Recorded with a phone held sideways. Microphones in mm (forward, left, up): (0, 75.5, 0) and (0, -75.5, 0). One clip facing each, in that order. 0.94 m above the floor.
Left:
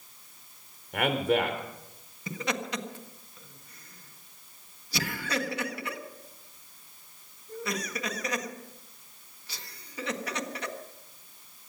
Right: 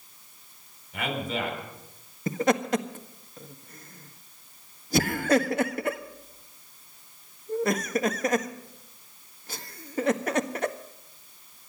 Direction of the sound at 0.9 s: 65° left (ahead or behind).